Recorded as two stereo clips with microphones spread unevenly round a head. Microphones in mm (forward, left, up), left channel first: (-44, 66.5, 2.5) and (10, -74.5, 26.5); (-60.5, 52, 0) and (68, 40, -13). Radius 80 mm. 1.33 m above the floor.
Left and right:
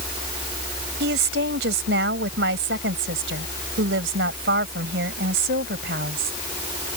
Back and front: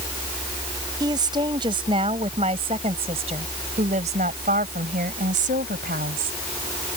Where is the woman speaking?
70° right; by 6.4 s 40° right.